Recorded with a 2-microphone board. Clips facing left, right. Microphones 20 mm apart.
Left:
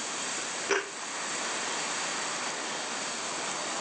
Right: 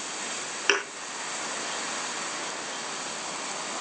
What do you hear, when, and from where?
0.7 s a thud: 60° right (ahead or behind), 9.5 m